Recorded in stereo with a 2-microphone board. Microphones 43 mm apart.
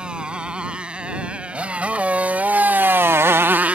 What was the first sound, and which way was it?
A motorcycle, 25° right (ahead or behind).